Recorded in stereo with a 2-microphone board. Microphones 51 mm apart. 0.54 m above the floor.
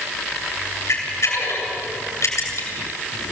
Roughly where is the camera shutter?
Left.